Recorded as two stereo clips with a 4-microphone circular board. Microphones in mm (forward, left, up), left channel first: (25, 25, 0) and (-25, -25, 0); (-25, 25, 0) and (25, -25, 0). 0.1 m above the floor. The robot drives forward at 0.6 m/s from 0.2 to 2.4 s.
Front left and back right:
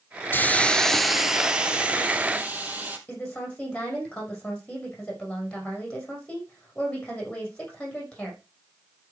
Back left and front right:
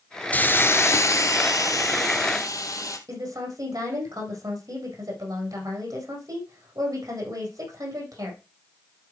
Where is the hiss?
85° left, 0.6 m; by 3.0 s 160° left, 1.4 m.